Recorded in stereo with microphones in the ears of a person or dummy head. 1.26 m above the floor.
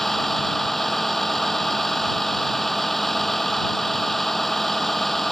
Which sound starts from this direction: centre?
A vehicle, at 0.0 s.